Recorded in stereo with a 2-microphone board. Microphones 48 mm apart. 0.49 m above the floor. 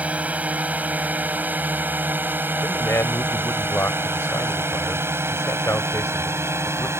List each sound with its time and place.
0.0 s a drone: 30° right (ahead or behind); by 7.0 s 65° right (ahead or behind)
2.6 s a man speaking: 65° left (ahead or behind)